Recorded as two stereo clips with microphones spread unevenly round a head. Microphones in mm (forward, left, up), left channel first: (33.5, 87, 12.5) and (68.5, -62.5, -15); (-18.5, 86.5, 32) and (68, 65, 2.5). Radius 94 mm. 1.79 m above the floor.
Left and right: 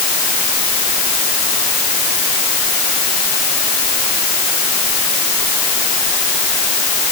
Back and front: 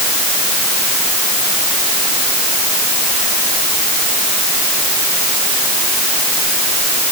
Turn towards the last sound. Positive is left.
No sound to turn to.